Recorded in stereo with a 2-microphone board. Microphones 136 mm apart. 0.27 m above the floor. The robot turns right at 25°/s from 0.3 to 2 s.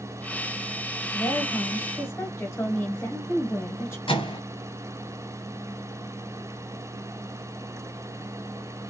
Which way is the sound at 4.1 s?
40° left (ahead or behind).